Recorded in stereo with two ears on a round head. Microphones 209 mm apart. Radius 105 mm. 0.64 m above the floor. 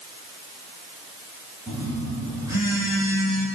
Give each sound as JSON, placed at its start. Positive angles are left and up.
{"t": 1.7, "sound": "a phone buzzing", "side_deg": -15, "distance_m": 4.0}